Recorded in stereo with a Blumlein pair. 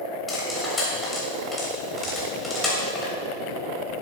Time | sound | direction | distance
0.3 | cutlery clinking | 15° left | 3 m